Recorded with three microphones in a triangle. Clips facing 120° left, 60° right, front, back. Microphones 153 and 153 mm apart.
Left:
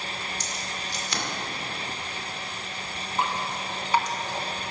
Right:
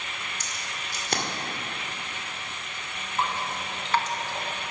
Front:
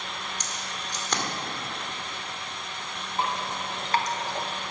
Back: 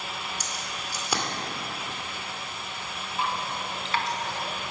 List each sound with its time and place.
0.4 s keys jangling: 100° right, 2 m
3.2 s dripping: 45° left, 1.3 m